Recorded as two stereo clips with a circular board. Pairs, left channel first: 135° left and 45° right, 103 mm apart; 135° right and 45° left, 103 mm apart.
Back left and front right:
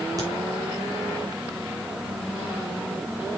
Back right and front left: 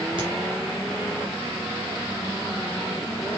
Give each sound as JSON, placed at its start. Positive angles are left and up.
{"t": 0.2, "sound": "a crack", "azimuth_deg": 10, "distance_m": 3.5}